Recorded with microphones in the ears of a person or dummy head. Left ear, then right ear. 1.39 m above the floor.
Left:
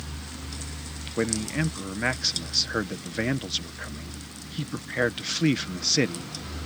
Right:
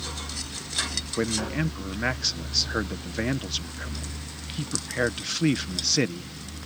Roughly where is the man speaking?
Centre.